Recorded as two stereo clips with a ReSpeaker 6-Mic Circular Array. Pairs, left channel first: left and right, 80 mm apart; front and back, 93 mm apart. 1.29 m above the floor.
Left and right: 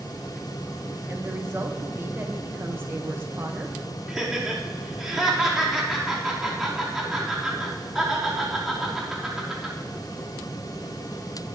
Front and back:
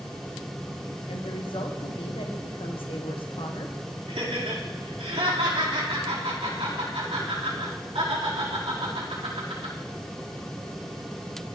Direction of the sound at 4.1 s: 175° right.